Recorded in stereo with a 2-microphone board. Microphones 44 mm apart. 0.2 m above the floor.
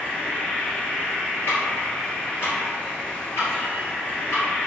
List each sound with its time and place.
0.0 s an insect: 25° left (ahead or behind), 1.0 m
1.5 s ticking: 60° left (ahead or behind), 1.5 m